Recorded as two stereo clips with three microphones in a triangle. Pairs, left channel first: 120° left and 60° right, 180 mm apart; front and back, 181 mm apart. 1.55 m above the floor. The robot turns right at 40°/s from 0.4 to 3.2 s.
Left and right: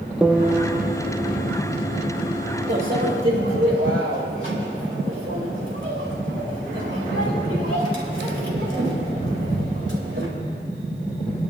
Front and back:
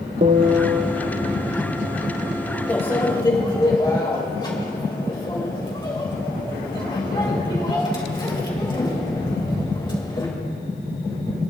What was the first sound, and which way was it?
A piano, 145° right.